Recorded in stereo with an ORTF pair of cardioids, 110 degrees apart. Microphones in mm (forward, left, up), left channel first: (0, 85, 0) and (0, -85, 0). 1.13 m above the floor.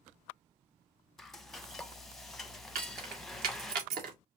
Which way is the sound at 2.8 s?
65° right.